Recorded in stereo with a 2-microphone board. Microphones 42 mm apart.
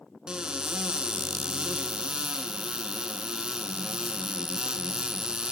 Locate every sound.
0.3 s a cupboard door: 20° right (ahead or behind), 0.7 m